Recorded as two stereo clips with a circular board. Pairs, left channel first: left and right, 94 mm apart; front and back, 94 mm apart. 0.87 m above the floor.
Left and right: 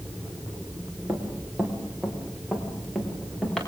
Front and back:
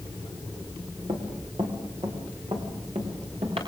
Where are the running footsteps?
160° right, 5 m; by 3.6 s 175° left, 7 m.